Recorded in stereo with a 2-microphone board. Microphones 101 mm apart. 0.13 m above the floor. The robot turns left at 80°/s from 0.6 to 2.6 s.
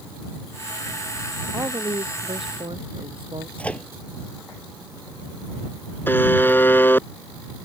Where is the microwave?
15° left (ahead or behind).